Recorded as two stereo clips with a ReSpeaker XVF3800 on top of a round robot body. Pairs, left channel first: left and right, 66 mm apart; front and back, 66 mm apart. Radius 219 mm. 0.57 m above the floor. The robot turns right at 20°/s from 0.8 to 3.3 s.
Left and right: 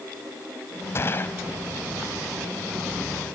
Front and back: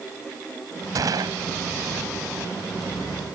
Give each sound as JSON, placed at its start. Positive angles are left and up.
{"t": 0.9, "sound": "a gunshot", "azimuth_deg": 145}